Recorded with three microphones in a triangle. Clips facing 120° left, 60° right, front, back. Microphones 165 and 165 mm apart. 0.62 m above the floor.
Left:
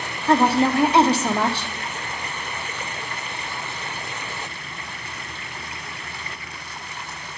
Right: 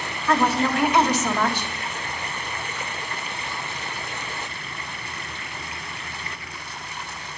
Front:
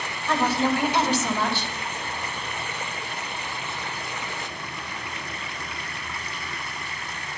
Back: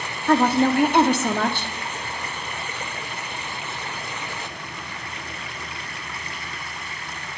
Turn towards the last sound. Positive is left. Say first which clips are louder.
# left 4 dB, back 5 dB
turn(degrees=175)